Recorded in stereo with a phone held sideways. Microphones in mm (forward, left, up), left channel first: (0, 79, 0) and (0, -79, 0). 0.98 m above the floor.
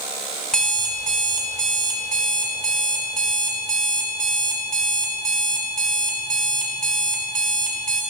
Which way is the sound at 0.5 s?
5° left (ahead or behind).